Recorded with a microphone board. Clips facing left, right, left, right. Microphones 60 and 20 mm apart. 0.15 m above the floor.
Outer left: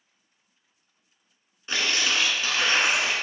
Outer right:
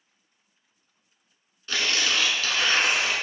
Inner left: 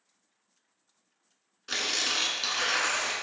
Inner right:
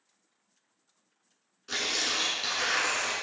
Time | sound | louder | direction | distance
1.7 | tearing paper | even, inner left 1 dB | 25° left (ahead or behind) | 1.0 m